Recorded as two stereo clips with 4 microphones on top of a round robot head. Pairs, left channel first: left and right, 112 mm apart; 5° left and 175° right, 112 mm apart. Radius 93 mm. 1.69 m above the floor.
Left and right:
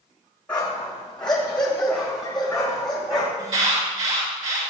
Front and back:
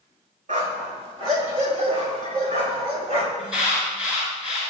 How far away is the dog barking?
About 3.5 m.